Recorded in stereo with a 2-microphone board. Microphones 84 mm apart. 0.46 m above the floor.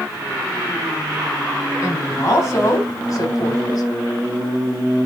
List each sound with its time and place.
1.8 s a woman speaking: 35° left (ahead or behind), 5 m; by 3.8 s 55° left (ahead or behind), 2.5 m